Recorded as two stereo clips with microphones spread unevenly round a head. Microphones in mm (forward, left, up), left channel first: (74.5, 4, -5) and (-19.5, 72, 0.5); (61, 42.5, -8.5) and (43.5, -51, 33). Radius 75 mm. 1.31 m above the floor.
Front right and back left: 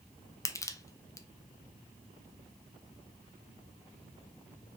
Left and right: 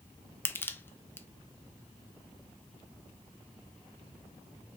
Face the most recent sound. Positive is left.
turn(degrees=25)